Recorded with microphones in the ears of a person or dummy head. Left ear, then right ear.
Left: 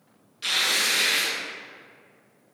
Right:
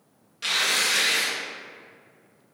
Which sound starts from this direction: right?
Tearing paper, at 0.4 s.